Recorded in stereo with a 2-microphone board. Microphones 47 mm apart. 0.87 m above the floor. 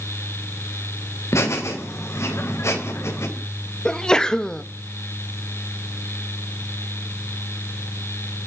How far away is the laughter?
About 3.5 m.